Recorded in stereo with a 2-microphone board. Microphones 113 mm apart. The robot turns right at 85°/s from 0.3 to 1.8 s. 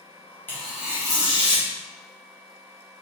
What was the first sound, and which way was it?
Tearing paper, 160° left.